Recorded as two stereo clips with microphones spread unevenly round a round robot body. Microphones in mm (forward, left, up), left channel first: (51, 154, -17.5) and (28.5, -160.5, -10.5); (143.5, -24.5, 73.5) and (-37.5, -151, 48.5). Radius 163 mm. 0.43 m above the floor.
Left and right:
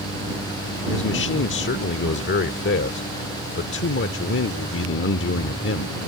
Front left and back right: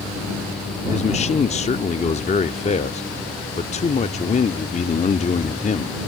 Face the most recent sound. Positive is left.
turn(degrees=85)